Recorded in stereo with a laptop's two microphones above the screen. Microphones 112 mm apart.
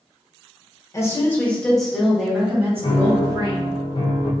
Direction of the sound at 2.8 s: 50° left (ahead or behind).